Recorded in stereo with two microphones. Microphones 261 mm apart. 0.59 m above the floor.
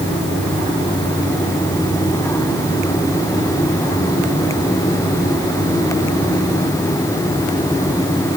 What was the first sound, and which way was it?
Only background noise.